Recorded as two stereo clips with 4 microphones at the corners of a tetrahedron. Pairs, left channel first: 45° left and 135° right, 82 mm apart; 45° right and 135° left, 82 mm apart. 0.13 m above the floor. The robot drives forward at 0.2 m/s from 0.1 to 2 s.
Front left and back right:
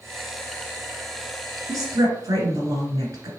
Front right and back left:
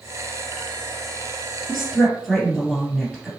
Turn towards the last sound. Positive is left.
turn(degrees=-135)